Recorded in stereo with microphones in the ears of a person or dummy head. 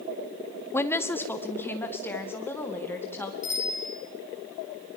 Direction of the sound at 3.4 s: 35° left (ahead or behind).